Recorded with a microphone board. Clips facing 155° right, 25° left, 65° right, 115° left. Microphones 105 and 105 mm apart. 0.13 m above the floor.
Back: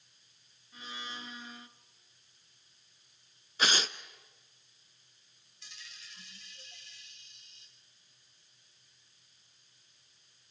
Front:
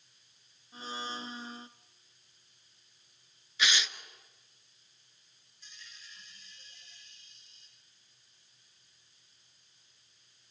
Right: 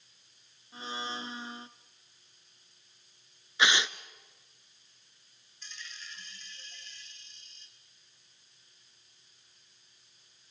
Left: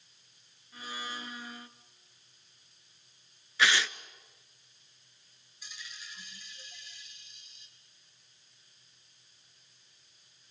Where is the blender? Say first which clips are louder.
Front 5 dB, right 3 dB; 15° right, 0.9 m.